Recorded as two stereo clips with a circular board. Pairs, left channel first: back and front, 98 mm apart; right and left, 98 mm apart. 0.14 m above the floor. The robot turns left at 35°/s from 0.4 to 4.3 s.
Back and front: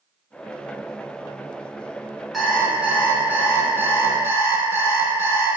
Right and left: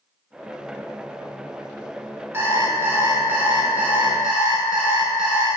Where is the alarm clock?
85° left, 0.7 m; by 5.5 s 15° left, 0.7 m.